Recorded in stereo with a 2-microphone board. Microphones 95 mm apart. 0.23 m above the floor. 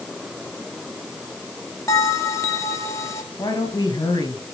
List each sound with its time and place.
1.9 s a bell: 35° left (ahead or behind), 1.4 m
3.4 s a woman speaking: 45° left (ahead or behind), 4 m